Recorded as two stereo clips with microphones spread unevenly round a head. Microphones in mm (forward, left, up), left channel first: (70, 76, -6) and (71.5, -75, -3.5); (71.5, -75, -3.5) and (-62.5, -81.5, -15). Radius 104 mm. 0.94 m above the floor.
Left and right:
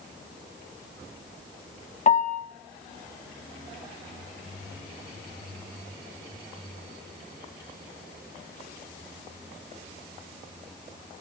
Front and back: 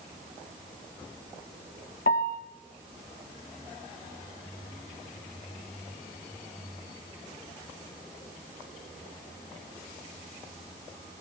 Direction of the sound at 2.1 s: 55° left.